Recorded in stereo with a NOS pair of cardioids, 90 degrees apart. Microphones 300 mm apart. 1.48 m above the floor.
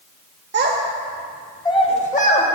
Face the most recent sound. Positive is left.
turn(degrees=30)